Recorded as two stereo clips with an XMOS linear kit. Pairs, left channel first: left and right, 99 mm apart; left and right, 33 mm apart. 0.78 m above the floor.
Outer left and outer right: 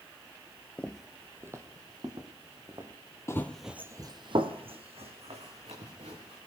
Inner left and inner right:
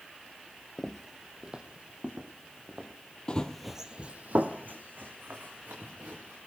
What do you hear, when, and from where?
0.8 s footsteps: 15° left (ahead or behind), 0.8 m; by 2.9 s 45° right (ahead or behind), 3 m
3.3 s running footsteps: 25° left (ahead or behind), 1.1 m; by 6.4 s 80° right, 4.5 m